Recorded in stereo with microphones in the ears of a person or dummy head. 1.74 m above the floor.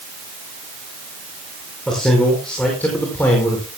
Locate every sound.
1.9 s a man speaking: centre (ahead or behind), 5.5 m; by 3.7 s 10° left (ahead or behind), 5 m